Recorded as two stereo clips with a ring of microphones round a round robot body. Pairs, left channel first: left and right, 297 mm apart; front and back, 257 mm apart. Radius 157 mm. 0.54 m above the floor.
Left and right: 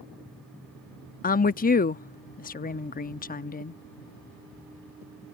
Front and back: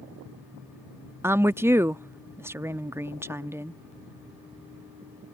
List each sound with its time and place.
1.2 s a woman speaking: 110° left